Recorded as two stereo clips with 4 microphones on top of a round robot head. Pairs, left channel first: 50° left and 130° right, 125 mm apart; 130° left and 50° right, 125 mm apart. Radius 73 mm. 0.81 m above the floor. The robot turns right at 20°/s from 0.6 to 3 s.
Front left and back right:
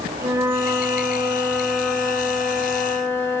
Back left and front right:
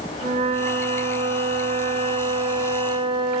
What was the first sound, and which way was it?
A flute, 65° right.